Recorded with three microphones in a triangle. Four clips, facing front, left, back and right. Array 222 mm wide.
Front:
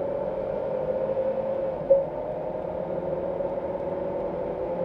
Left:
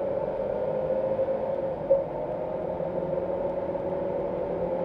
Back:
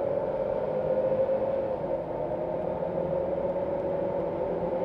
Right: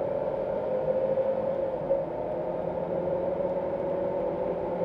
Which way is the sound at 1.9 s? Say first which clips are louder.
Left 6 dB, front 10 dB; 20° left.